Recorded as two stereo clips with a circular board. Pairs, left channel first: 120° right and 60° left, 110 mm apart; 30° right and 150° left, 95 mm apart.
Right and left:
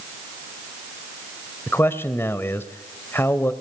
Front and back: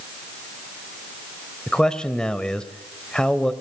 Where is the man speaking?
100° right, 1.4 m.